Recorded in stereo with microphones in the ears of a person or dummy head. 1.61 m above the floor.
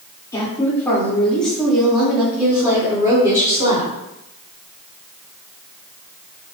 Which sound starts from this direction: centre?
A woman speaking, at 0.3 s.